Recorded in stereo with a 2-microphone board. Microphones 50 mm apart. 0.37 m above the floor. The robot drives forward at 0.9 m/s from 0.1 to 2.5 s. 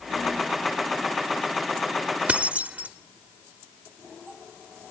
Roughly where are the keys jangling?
Right.